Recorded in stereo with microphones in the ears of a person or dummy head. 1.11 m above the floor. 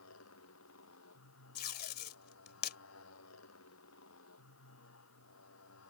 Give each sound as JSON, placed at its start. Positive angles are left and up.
{"t": 0.0, "sound": "a motorcycle", "side_deg": 75}
{"t": 1.6, "sound": "tape being pulled", "side_deg": 55}